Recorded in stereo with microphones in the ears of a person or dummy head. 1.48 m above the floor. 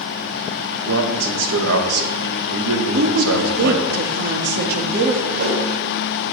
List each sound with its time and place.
0.8 s a man speaking: 80° right, 2 m
2.9 s a woman speaking: 60° right (ahead or behind), 1.9 m
5.3 s a whoosh: 50° right (ahead or behind), 4 m